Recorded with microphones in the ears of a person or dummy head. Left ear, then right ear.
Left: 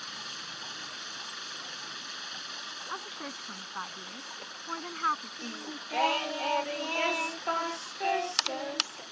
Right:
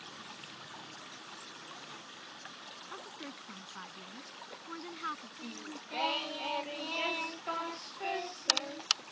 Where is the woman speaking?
45° left (ahead or behind).